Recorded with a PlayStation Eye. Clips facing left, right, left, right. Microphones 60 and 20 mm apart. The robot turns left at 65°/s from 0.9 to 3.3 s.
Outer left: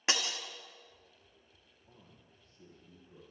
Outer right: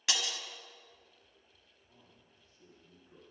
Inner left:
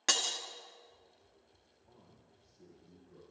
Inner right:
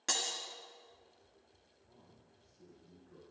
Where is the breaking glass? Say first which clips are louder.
Outer left 2 dB, inner left 4 dB; 30° left (ahead or behind), 1.6 m.